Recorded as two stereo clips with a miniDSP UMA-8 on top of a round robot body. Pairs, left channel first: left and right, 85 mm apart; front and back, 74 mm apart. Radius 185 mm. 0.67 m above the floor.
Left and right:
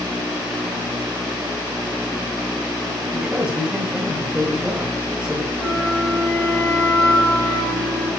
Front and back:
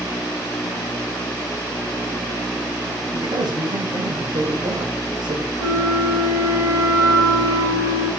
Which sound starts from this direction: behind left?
A flute, at 5.6 s.